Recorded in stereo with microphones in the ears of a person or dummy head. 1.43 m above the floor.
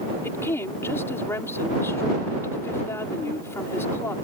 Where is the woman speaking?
20° left (ahead or behind).